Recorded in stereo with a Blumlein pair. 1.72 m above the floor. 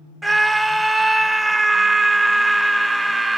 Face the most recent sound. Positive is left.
turn(degrees=-5)